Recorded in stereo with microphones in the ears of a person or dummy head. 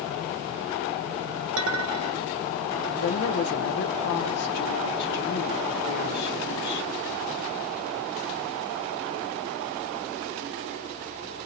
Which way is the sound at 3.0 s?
60° left (ahead or behind).